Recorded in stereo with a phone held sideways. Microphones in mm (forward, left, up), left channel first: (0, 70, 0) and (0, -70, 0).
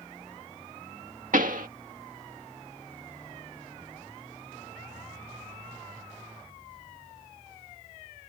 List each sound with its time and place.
1.3 s a pop: 75° right (ahead or behind)